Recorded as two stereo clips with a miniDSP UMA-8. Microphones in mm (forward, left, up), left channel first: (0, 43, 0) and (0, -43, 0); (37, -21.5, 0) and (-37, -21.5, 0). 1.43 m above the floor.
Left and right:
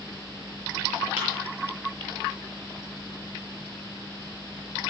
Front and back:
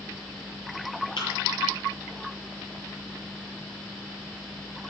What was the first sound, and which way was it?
A thud, 15° right.